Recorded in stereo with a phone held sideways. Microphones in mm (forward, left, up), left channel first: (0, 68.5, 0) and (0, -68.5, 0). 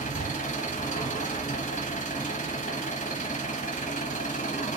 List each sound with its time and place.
0.0 s an engine running: 60° left (ahead or behind), 1.1 m